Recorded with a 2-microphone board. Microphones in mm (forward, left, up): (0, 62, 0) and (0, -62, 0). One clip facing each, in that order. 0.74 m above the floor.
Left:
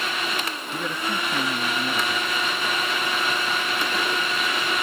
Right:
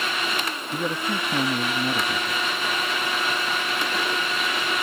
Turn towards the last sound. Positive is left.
turn(degrees=-20)  # may be behind; listen again after turning